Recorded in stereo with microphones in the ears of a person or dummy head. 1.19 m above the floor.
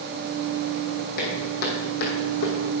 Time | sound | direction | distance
1.2 | footsteps | 55° left (ahead or behind) | 3 m